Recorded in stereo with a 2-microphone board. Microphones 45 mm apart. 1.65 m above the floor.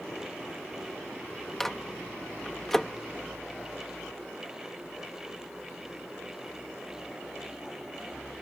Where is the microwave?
10° left (ahead or behind).